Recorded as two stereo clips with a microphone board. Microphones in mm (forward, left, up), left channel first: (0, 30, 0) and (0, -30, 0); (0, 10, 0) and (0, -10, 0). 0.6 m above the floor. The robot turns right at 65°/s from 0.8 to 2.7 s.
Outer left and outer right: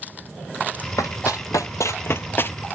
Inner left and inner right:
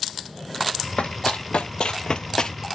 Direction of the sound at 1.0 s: 65° left (ahead or behind).